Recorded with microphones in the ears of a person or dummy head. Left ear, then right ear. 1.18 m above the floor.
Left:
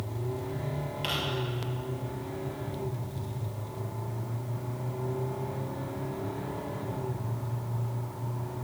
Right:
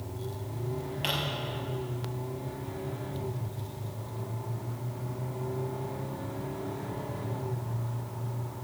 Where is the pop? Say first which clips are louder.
Right 1 dB; 10° right (ahead or behind), 5 m.